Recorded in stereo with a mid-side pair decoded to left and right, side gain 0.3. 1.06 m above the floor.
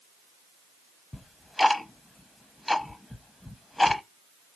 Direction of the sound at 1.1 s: 20° left.